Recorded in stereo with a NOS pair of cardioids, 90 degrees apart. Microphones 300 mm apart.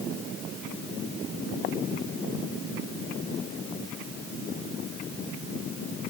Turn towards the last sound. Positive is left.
No sound to turn to.